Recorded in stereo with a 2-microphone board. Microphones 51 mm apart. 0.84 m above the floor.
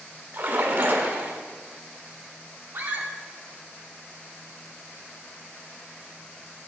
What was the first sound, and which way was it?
A splash, 50° right (ahead or behind).